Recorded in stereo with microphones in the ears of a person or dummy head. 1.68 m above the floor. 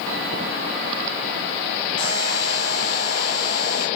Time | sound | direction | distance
2.0 | a buzzer | 25° left (ahead or behind) | 5 m